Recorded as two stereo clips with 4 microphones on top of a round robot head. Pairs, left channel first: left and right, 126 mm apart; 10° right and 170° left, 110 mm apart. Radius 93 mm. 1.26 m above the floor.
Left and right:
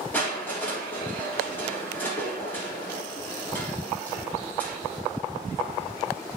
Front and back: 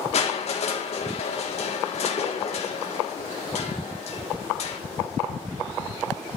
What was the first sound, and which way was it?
Crushing, 10° left.